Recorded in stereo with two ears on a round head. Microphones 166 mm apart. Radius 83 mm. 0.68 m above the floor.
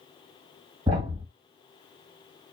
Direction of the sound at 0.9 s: 30° right (ahead or behind).